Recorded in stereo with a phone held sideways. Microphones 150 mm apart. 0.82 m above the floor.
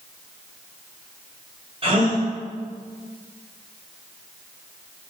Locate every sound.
1.8 s a gasp: 40° right (ahead or behind), 2.5 m